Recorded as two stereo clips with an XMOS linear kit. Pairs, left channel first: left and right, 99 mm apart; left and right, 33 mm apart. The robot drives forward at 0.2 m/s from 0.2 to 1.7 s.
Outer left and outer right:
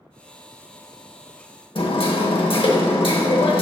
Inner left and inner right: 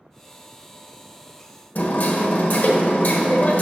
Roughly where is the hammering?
Left.